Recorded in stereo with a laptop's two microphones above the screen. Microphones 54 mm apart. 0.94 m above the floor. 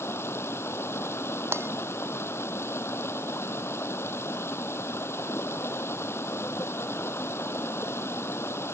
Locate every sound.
0.0 s running water: 50° left (ahead or behind)
1.5 s breaking glass: 50° right (ahead or behind)